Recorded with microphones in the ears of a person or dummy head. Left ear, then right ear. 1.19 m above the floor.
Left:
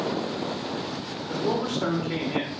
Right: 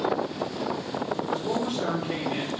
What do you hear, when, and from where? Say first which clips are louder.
1.3 s a man speaking: left 5 dB; 50° left (ahead or behind), 1.3 m